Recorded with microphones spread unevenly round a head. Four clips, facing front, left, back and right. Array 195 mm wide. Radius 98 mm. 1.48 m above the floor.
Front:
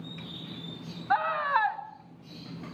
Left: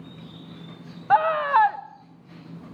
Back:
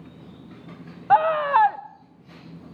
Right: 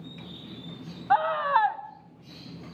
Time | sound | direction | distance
1.1 | a scream | 160° left | 1.2 m